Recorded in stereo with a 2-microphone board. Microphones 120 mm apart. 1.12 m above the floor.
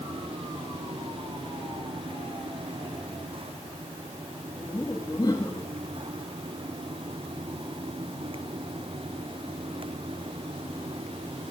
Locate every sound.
4.5 s laughter: 25° left (ahead or behind), 2 m